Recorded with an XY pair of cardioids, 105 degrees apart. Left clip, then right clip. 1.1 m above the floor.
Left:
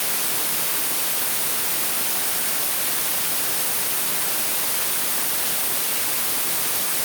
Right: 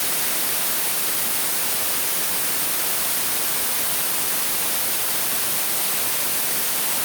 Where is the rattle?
No rattle in this recording.